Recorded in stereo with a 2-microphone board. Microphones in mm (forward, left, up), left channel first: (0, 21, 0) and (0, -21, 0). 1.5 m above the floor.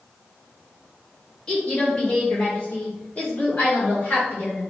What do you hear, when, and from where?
1.5 s a woman speaking: 20° left (ahead or behind), 3 m; by 4.6 s 40° left (ahead or behind), 4.5 m